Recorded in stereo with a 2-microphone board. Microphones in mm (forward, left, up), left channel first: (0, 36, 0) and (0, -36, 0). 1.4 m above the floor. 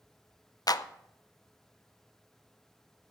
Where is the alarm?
I don't hear an alarm.